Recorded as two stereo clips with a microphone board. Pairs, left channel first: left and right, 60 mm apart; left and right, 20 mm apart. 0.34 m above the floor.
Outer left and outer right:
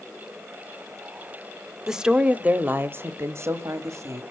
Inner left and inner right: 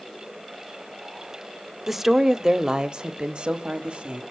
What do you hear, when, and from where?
1.9 s a woman speaking: 10° right (ahead or behind), 0.9 m; by 4.2 s 60° right (ahead or behind), 1.6 m